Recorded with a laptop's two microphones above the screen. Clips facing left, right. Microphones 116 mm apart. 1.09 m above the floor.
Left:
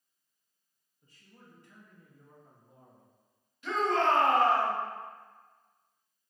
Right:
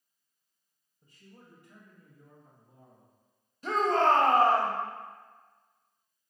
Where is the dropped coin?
No dropped coin in this recording.